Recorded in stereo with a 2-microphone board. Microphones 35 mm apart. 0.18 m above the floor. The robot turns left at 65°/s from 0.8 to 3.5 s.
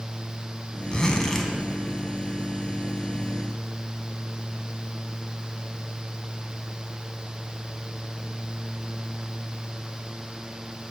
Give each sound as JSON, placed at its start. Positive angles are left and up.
{"t": 0.9, "sound": "a zipper", "azimuth_deg": 50, "distance_m": 0.8}